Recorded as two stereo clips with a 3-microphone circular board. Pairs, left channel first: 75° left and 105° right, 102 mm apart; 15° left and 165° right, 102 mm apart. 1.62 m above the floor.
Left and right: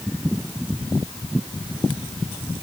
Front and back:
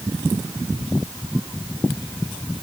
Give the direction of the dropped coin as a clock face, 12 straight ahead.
No dropped coin in this recording.